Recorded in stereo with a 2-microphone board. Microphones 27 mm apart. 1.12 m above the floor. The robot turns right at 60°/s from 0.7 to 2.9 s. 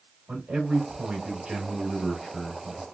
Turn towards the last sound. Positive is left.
turn(degrees=45)